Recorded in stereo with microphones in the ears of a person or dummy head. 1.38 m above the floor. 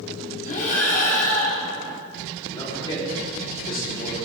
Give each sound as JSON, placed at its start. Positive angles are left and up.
{"t": 0.5, "sound": "breathing", "side_deg": 40, "distance_m": 3.5}
{"t": 2.5, "sound": "a man speaking", "side_deg": 25, "distance_m": 5.0}